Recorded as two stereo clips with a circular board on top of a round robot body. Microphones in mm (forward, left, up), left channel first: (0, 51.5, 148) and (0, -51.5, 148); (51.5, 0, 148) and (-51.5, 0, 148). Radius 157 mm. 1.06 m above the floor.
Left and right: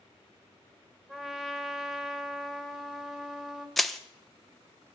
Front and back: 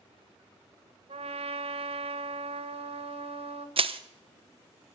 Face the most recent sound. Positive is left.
turn(degrees=180)